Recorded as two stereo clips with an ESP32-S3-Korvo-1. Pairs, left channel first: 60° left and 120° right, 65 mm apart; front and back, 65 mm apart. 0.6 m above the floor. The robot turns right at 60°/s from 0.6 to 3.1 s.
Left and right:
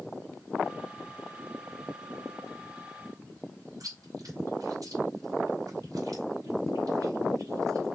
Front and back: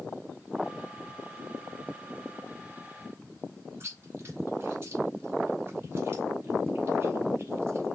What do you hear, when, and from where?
3.8 s chewing: 140° right, 2.5 m